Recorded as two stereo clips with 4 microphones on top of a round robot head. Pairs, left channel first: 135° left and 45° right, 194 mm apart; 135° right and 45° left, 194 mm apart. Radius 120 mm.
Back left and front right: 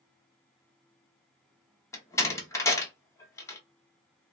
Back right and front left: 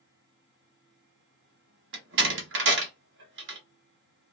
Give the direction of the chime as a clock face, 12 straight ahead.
I don't hear a chime.